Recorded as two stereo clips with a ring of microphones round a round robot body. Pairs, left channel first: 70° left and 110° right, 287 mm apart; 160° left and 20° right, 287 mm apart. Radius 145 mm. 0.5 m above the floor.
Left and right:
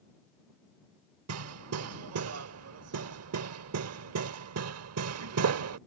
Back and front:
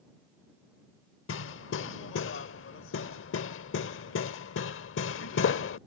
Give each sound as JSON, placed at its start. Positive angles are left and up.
{"t": 1.3, "sound": "hammering", "azimuth_deg": -155}